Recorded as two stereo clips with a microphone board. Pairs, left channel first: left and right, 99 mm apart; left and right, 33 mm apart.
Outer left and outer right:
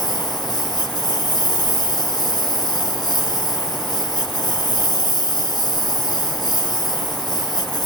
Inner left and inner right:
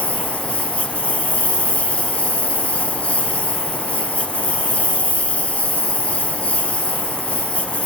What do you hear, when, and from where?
0.0 s a lawn mower: 45° left (ahead or behind)